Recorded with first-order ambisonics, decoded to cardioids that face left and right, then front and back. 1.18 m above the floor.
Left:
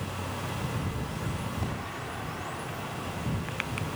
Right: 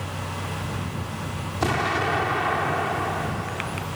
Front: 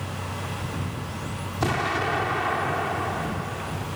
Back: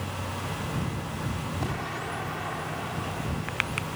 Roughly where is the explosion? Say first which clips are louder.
Right 13 dB, front 11 dB; ahead right.